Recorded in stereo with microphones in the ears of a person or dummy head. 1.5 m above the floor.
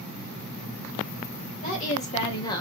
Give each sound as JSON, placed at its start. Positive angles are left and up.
{"t": 1.6, "sound": "a woman speaking", "side_deg": 35, "distance_m": 1.9}